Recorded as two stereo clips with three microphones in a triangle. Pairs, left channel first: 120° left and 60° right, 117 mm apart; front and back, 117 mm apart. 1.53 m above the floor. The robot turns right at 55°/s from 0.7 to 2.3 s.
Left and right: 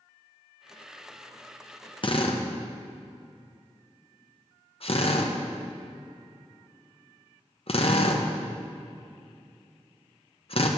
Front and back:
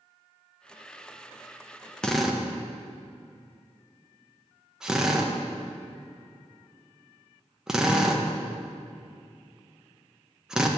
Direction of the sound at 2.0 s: 85° left.